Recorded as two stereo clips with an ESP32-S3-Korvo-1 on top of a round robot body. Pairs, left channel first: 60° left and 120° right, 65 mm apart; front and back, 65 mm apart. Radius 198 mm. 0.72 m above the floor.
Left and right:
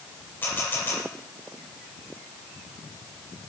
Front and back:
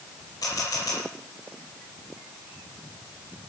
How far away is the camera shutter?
About 8.5 m.